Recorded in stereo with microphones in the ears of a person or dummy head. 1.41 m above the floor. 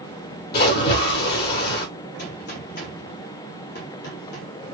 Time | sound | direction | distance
0.5 | a splash | 50° left (ahead or behind) | 1.7 m
2.2 | a gunshot | 50° left (ahead or behind) | 1.3 m